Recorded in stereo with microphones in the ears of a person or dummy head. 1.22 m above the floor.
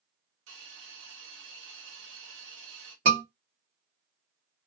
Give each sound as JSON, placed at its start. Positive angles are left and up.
{"t": 0.5, "sound": "a hiss", "side_deg": -75, "distance_m": 1.3}
{"t": 3.0, "sound": "a scream", "side_deg": -65, "distance_m": 1.1}